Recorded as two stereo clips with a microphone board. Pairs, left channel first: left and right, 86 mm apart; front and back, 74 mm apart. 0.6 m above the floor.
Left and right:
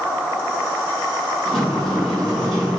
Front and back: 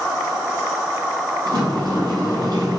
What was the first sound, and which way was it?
A sliding door, 175° left.